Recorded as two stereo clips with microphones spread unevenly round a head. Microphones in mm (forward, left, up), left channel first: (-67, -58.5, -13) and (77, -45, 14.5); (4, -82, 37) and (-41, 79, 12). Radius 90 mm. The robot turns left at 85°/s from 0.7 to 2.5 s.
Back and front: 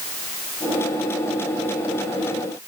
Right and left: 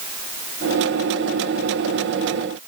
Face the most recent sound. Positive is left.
No sound to turn to.